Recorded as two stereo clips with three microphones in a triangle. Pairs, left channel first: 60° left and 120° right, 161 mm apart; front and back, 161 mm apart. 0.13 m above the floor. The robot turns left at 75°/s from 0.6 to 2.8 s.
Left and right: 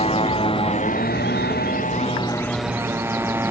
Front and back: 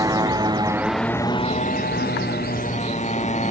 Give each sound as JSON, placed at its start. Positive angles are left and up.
{"t": 0.0, "sound": "a motorcycle", "azimuth_deg": 110}